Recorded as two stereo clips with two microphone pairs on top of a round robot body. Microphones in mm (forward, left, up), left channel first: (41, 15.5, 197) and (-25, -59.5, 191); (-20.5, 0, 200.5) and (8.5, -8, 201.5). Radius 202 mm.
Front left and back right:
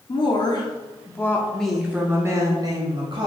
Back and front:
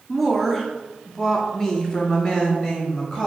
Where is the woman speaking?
70° left, 1.4 m; by 3.3 s 135° right, 1.5 m.